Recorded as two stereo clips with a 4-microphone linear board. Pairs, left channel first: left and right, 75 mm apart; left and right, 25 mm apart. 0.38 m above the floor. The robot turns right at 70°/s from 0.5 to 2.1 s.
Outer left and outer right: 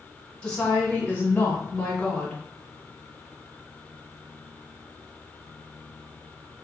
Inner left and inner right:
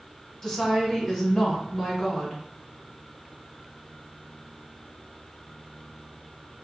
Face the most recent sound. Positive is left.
turn(degrees=15)  # may be behind; listen again after turning